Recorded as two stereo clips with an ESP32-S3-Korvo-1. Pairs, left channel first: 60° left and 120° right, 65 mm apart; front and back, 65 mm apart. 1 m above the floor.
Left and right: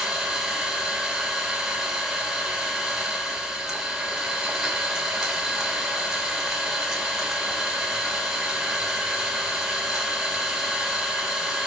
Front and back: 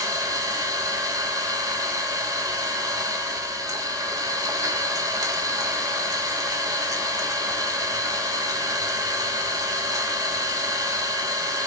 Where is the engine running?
160° left, 3 m.